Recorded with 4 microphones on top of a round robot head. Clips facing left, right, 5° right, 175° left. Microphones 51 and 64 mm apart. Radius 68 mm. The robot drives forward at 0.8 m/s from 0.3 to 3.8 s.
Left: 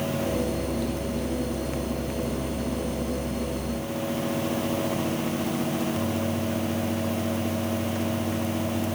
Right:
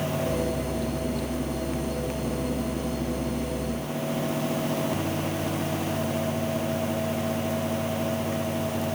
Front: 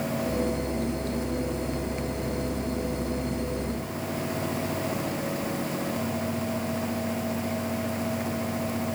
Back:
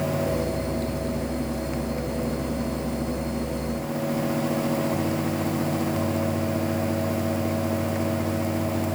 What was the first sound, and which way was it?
Only background noise.